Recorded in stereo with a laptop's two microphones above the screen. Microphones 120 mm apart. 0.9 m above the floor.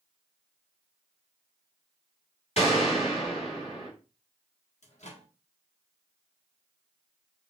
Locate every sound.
2.6 s a gunshot: 65° left (ahead or behind), 3 m
4.8 s a microwave: 75° left (ahead or behind), 1.5 m